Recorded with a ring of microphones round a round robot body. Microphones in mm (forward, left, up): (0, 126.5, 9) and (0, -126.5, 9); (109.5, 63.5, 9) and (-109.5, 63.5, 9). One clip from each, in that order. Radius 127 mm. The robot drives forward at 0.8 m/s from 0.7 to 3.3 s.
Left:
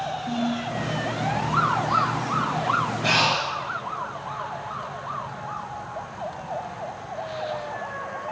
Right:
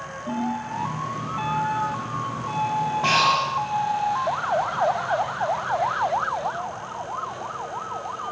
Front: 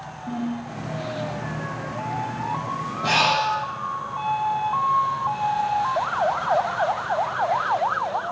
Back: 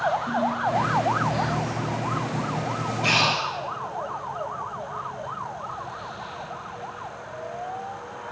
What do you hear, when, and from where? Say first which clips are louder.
0.3 s a ringtone: even, back 7 dB; 145° right, 8 m
3.0 s breathing: right 3 dB, front 2 dB; 145° right, 7.5 m; by 3.5 s 150° right, 7.5 m